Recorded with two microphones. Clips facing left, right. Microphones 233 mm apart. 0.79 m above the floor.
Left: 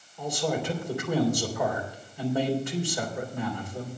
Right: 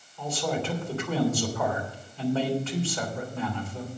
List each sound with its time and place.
0.2 s a man speaking: 15° left (ahead or behind), 3 m